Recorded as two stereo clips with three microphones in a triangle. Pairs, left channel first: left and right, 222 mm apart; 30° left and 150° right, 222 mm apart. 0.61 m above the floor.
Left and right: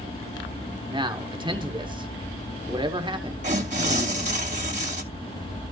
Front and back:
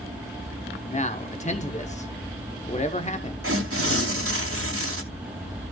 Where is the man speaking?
25° right, 1.1 m.